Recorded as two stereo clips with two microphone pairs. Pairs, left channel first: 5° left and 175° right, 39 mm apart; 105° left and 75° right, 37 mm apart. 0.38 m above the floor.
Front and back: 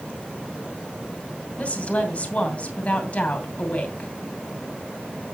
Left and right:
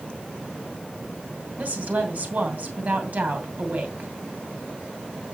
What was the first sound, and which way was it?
A woman speaking, 45° right.